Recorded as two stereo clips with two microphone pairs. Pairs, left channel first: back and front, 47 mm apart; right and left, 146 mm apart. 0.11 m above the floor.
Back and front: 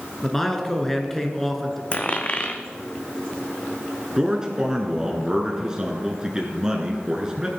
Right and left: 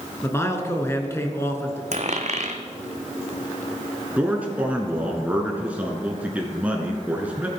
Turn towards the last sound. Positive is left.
turn(degrees=40)